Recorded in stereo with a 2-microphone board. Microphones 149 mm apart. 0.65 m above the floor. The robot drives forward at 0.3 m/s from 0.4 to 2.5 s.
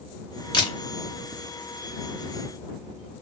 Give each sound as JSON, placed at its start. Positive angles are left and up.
{"t": 0.5, "sound": "a camera shutter", "side_deg": 30, "distance_m": 0.7}